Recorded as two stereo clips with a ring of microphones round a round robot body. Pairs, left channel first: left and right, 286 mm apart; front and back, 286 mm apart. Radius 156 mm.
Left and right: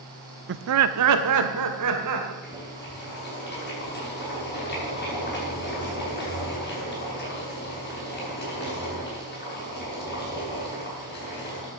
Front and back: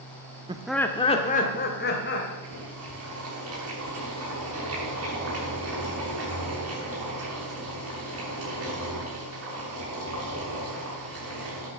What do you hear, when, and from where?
0.5 s laughter: 115° right, 0.7 m; by 2.3 s 55° right, 2.5 m
2.4 s boiling: 145° left, 7 m